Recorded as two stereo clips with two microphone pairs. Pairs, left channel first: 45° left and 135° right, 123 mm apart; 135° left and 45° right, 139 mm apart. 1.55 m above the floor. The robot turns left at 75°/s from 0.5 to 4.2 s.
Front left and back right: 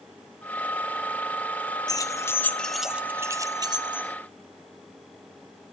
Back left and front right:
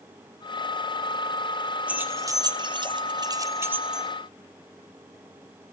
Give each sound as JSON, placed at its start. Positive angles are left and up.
{"t": 1.9, "sound": "keys jangling", "azimuth_deg": 25, "distance_m": 0.6}